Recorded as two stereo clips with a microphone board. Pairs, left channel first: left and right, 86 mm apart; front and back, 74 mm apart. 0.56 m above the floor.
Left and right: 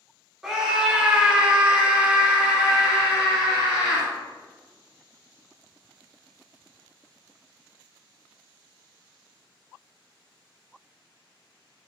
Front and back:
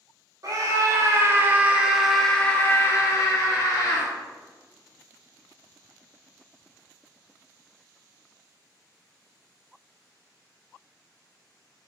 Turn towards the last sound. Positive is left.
turn(degrees=-10)